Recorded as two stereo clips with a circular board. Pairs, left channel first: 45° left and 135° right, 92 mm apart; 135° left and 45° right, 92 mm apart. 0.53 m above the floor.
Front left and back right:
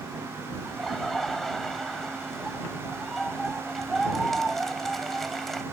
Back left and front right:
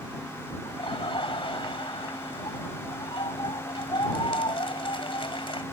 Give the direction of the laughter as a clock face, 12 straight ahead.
8 o'clock.